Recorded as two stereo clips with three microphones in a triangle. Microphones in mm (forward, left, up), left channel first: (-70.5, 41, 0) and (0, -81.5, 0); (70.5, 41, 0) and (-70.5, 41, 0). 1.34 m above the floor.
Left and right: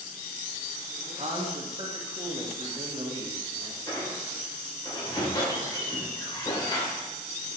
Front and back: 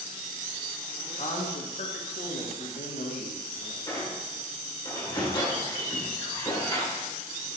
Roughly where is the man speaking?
Ahead.